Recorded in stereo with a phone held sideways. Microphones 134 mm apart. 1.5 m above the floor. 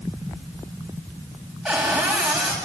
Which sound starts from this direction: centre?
A cupboard door, at 1.6 s.